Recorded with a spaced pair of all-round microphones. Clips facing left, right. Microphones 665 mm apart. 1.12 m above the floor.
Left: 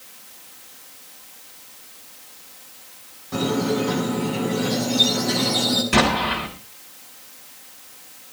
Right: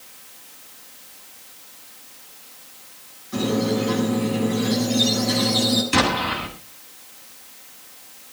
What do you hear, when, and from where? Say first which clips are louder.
3.3 s a squeak: even; 85° left, 6.5 m
5.9 s an explosion: left 2 dB; 80° left, 7.5 m